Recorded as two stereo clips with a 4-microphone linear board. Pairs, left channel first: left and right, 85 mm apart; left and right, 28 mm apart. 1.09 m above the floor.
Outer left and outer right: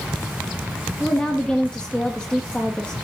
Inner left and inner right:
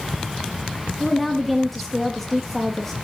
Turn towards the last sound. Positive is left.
turn(degrees=10)  # may be behind; listen again after turning